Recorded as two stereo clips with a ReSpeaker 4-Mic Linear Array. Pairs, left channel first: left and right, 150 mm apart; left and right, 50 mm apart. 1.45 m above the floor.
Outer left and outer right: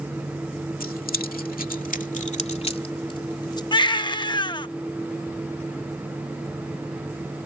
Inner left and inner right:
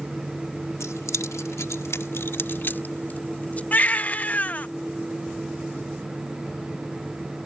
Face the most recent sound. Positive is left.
turn(degrees=30)  # may be behind; listen again after turning